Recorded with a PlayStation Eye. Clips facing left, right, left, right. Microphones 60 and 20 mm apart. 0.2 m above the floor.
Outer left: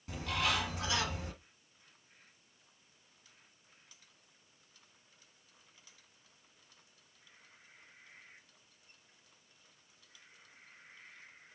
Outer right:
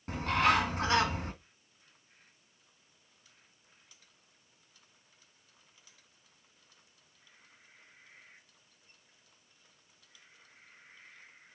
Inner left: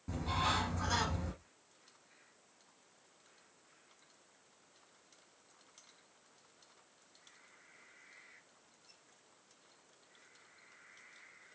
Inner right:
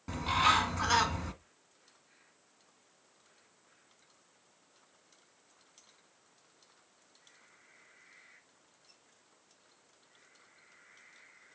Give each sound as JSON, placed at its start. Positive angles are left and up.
{"t": 0.1, "sound": "a bird", "side_deg": -50, "distance_m": 1.5}